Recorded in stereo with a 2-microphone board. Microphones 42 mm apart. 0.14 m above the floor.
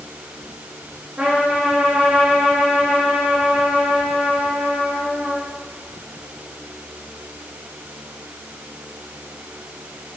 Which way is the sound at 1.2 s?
30° right (ahead or behind).